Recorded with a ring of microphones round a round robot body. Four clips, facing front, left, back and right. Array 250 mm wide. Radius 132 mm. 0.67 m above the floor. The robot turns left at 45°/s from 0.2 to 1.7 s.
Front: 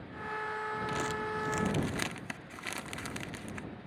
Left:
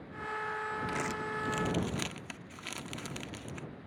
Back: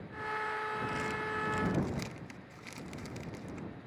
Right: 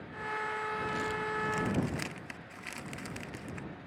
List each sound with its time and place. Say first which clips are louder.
0.9 s crumpling: right 1 dB, front 2 dB; 50° left; by 3.7 s 15° left